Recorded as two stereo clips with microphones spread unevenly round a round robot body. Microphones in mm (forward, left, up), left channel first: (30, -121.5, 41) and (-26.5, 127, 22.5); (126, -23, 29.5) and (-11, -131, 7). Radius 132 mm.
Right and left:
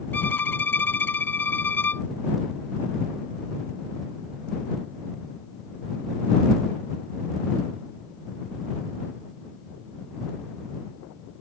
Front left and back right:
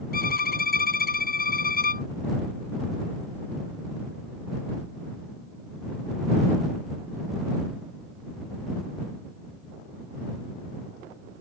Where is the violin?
5° left.